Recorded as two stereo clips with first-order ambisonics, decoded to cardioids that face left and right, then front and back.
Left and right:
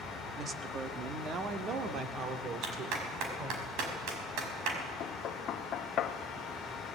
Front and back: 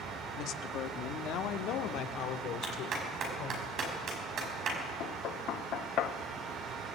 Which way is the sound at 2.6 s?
120° right.